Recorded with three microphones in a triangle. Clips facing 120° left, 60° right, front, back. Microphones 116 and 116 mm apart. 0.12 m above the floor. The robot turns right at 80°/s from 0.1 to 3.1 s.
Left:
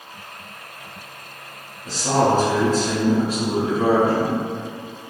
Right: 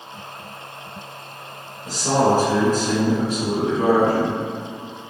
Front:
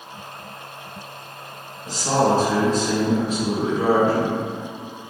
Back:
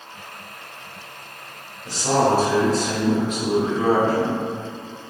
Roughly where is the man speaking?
Behind right.